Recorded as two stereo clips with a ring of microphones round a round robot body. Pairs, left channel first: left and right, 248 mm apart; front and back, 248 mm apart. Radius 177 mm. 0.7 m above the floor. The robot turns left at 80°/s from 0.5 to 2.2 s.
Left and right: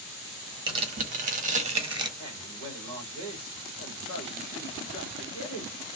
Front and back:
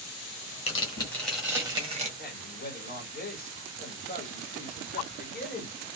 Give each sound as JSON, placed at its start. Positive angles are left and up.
{"t": 0.7, "sound": "tearing paper", "azimuth_deg": -35, "distance_m": 1.0}
{"t": 2.2, "sound": "a man speaking", "azimuth_deg": 35, "distance_m": 1.4}